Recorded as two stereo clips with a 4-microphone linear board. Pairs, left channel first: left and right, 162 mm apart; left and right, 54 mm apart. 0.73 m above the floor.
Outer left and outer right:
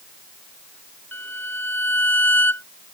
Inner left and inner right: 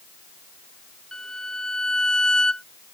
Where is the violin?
10° left (ahead or behind).